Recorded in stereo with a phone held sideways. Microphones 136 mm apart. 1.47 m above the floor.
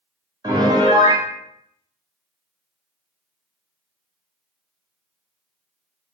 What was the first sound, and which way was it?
A piano, 30° right (ahead or behind).